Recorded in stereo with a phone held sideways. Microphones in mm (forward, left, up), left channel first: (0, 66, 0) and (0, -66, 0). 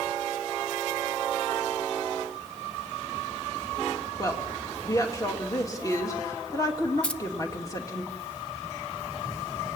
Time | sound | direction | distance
4.2 | a woman speaking | 25° left (ahead or behind) | 2.5 m
7.0 | keys jangling | 10° left (ahead or behind) | 0.8 m